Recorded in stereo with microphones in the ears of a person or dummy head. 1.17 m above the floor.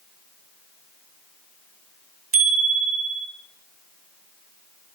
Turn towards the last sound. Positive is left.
turn(degrees=-50)  # may be behind; listen again after turning